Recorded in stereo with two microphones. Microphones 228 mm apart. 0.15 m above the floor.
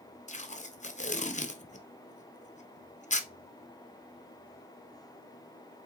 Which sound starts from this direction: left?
Tape being pulled, at 0.3 s.